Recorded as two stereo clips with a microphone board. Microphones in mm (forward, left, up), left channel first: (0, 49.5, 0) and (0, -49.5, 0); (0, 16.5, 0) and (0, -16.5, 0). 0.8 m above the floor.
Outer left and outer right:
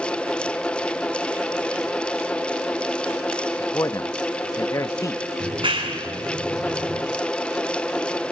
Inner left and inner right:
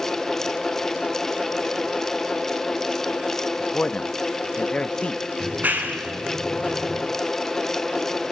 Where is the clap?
65° right (ahead or behind), 7 m.